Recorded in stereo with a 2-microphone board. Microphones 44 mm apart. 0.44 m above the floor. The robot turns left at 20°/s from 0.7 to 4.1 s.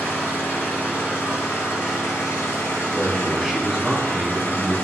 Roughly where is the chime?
No chime in this recording.